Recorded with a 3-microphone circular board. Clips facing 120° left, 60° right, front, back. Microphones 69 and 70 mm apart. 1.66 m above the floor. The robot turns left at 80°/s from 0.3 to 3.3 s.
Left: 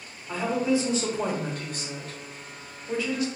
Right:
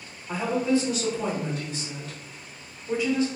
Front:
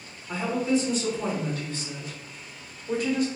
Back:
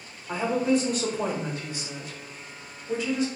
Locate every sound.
0.3 s a woman speaking: 135° right, 0.8 m; by 3.3 s 15° right, 0.8 m